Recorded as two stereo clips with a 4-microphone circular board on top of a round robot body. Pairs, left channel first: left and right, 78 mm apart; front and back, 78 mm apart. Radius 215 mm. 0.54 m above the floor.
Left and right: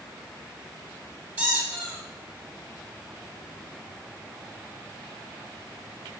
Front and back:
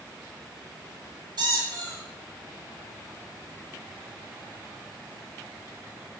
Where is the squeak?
155° right, 1.4 m.